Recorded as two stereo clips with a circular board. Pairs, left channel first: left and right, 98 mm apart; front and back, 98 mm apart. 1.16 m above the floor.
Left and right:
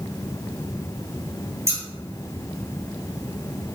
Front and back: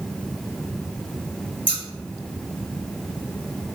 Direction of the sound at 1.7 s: 30° right.